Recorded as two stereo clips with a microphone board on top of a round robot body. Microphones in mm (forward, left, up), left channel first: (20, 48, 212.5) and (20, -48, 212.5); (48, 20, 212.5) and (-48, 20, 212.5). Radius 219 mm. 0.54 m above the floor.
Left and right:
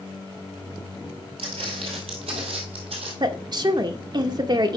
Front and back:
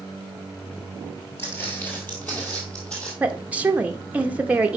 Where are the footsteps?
70° right, 1.1 m; by 3.1 s 80° right, 2 m.